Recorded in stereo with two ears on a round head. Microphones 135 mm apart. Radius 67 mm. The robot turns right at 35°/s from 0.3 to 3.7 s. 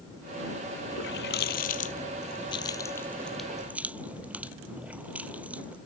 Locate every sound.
0.9 s a running tap: 90° left; by 5.8 s 10° right (ahead or behind)